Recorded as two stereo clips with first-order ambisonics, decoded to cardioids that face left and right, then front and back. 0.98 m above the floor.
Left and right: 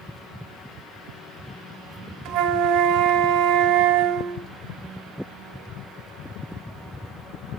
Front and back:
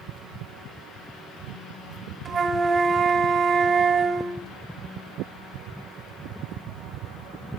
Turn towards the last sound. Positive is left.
turn(degrees=-115)